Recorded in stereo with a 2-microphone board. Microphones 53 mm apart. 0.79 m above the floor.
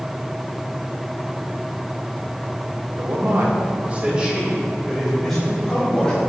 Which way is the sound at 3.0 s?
65° right (ahead or behind).